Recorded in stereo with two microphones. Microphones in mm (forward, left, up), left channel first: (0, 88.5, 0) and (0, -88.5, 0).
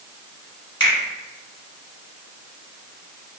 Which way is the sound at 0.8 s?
30° left (ahead or behind).